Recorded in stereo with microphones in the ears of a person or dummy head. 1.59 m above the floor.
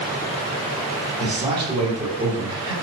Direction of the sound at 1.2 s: 30° right (ahead or behind).